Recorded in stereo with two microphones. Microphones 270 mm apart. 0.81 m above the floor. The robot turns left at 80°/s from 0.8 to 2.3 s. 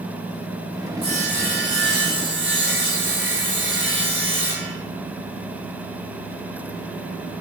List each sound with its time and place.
1.0 s sawing: 25° right, 1.1 m; by 4.7 s 125° right, 1.1 m